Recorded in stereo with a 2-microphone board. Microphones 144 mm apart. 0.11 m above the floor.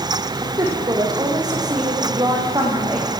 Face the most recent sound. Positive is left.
turn(degrees=-30)  # may be behind; listen again after turning